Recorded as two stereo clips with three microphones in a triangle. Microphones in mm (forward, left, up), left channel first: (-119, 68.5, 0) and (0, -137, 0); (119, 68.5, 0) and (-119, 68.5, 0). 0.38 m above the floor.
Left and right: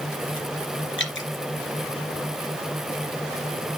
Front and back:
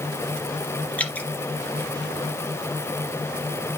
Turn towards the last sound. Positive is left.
turn(degrees=85)